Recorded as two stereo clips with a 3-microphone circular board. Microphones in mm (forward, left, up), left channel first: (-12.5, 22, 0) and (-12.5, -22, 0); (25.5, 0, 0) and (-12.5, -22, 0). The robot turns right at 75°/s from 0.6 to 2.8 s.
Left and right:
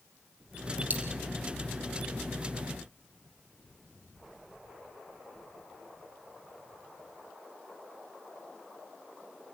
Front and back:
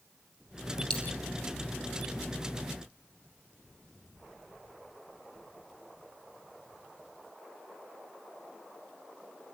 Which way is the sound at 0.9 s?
45° right.